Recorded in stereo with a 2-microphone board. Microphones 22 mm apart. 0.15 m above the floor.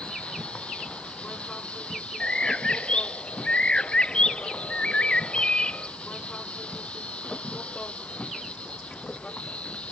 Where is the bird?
50° left (ahead or behind).